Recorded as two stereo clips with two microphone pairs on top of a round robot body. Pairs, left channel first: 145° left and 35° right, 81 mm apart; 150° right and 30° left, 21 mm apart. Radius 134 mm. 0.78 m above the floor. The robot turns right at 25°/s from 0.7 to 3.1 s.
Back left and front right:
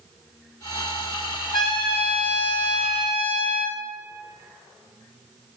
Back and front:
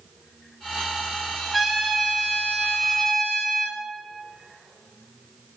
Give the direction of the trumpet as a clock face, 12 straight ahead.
8 o'clock.